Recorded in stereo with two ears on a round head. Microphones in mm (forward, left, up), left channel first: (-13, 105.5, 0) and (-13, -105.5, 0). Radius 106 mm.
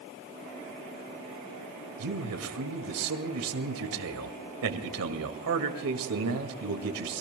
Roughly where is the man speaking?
Right.